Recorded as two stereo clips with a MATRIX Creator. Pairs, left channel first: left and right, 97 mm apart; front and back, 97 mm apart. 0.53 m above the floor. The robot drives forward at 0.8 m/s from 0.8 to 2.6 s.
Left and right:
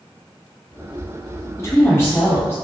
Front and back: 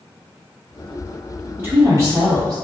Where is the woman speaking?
125° left, 1.4 m; by 2.5 s 150° left, 1.8 m.